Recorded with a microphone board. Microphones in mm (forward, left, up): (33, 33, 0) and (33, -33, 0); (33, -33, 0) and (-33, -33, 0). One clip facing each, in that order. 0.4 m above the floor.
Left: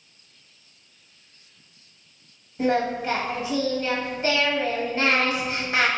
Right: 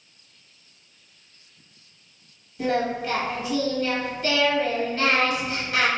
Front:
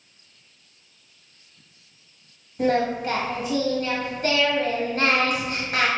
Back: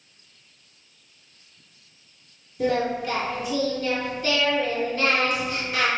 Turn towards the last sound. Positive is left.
turn(degrees=30)